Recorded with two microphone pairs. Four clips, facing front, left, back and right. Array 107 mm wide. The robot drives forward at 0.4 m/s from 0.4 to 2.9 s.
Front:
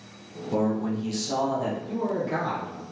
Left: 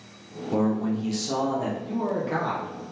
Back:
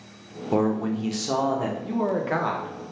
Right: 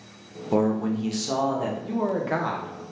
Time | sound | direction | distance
0.5 | a man speaking | 140° right | 0.6 m
1.8 | a man speaking | 135° right | 0.6 m